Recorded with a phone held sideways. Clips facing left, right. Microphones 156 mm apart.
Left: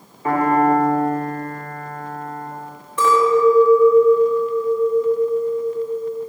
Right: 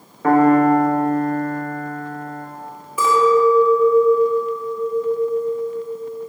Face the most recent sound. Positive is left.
turn(degrees=-5)  # may be behind; listen again after turning